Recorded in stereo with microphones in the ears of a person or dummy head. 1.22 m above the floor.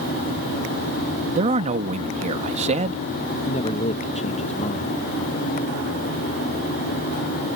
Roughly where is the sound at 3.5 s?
Left.